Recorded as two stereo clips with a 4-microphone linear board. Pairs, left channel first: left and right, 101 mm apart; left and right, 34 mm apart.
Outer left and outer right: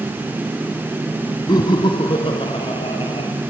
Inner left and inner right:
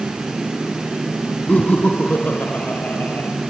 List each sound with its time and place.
1.5 s laughter: 45° left (ahead or behind), 1.9 m; by 3.3 s 65° left (ahead or behind), 4 m